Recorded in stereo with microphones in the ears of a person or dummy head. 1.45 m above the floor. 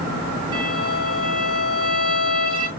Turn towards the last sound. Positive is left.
turn(degrees=-20)  # may be behind; listen again after turning